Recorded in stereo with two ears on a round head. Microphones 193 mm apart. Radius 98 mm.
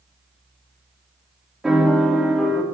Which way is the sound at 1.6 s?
Centre (ahead or behind).